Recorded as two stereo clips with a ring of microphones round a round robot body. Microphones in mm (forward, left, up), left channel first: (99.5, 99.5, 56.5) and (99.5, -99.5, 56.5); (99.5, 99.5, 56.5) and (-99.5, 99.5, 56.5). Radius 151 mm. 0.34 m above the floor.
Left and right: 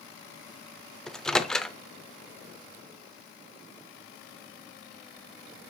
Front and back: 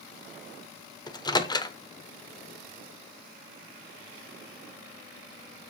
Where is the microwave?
5° left, 0.9 m.